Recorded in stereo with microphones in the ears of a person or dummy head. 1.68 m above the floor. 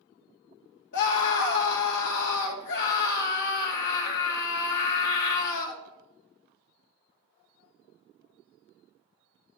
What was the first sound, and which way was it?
A scream, 75° left (ahead or behind).